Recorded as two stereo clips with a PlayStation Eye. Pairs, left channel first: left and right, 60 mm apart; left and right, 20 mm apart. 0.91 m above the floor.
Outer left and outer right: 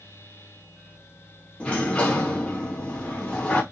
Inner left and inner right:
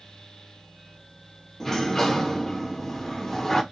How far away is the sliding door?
About 0.7 m.